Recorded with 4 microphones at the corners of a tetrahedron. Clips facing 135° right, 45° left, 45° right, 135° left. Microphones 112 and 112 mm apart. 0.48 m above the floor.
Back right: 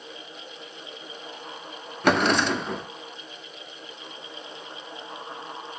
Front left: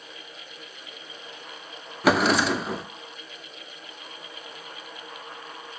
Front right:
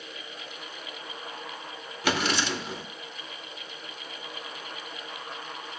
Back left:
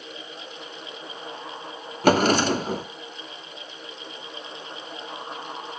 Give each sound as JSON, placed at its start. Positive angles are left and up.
{"t": 2.0, "sound": "a drawer", "azimuth_deg": 130, "distance_m": 0.5}